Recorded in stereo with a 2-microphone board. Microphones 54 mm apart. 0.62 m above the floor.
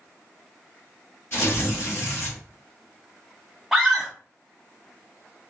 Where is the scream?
5° right (ahead or behind), 0.6 m.